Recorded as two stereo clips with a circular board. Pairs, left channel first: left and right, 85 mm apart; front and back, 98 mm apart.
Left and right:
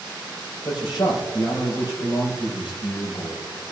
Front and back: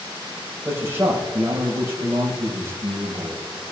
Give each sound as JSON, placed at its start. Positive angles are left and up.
{"t": 0.7, "sound": "a man speaking", "azimuth_deg": 115, "distance_m": 4.5}